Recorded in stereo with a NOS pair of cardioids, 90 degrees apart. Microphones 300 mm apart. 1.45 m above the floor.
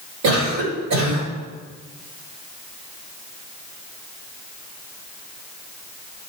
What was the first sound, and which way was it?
A cough, 60° right.